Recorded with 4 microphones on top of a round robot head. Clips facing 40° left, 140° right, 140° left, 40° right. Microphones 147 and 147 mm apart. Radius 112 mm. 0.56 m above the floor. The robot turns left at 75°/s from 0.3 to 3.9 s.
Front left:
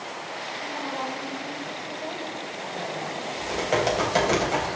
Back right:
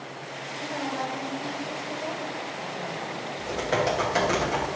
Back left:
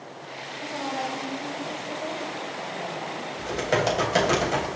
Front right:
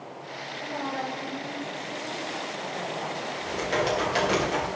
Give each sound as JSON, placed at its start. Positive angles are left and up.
{"t": 0.6, "sound": "a woman speaking", "azimuth_deg": -115, "distance_m": 4.5}
{"t": 3.4, "sound": "typing on a keyboard", "azimuth_deg": 140, "distance_m": 3.5}